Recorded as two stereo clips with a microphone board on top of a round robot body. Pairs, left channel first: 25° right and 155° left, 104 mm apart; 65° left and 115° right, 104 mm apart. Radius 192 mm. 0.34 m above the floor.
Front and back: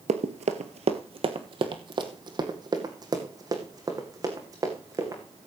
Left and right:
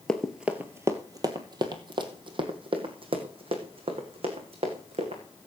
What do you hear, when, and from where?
0.1 s running footsteps: 150° left, 0.6 m; by 5.2 s 140° right, 3 m